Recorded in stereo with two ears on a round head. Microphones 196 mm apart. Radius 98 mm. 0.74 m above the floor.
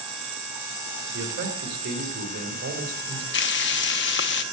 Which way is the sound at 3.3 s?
55° left (ahead or behind).